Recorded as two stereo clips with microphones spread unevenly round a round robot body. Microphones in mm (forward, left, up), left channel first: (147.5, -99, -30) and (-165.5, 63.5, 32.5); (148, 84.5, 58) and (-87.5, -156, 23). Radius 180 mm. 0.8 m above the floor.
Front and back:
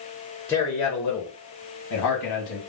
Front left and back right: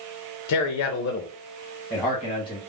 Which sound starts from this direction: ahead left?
A man speaking, at 0.5 s.